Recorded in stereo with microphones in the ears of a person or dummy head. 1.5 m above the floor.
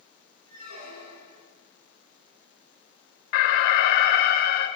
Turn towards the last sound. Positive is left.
turn(degrees=55)  # may be behind; listen again after turning